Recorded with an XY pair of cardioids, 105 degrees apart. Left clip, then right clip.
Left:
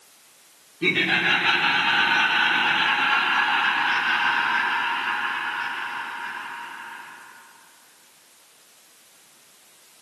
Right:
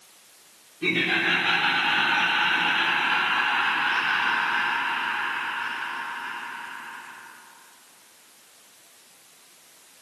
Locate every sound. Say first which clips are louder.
0.8 s laughter: left 2 dB; 40° left, 2.5 m; by 7.1 s 75° left, 6.5 m